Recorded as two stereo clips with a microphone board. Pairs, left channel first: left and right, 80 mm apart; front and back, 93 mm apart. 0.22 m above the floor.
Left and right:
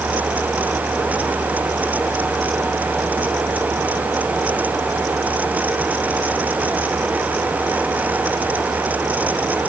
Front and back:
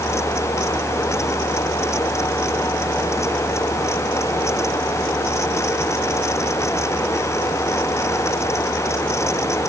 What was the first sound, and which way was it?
Only background noise.